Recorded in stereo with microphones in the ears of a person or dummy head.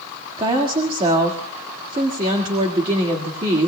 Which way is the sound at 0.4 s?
25° right (ahead or behind).